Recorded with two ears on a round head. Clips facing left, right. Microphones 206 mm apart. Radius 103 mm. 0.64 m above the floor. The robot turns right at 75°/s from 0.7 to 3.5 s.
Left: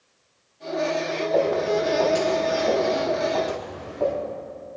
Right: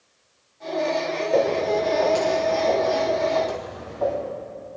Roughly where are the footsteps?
Right.